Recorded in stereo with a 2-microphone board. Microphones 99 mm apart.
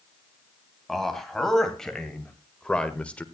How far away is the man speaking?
About 3 m.